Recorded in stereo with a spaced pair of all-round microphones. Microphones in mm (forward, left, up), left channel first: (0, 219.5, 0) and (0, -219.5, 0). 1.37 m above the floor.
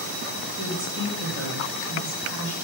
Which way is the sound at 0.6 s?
65° right (ahead or behind).